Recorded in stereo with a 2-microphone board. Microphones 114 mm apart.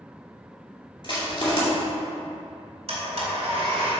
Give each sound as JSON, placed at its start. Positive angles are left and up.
{"t": 1.0, "sound": "crushing", "side_deg": 45, "distance_m": 2.0}
{"t": 2.9, "sound": "a blender", "side_deg": -60, "distance_m": 2.0}